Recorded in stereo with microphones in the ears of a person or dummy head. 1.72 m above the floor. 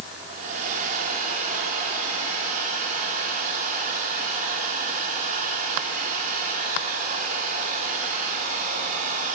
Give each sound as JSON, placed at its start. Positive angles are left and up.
{"t": 0.3, "sound": "a hair dryer", "side_deg": -35, "distance_m": 2.5}